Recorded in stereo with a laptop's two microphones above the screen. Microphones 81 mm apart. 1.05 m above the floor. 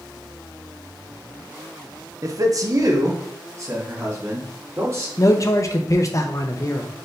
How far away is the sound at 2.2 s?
About 0.6 m.